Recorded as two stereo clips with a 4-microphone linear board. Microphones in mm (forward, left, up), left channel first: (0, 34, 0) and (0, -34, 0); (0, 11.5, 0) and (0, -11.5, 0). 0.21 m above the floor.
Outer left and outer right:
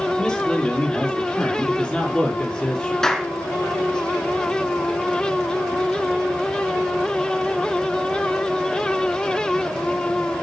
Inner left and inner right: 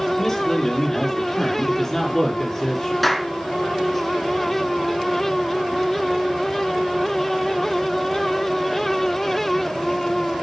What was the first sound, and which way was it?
A man speaking, 10° left (ahead or behind).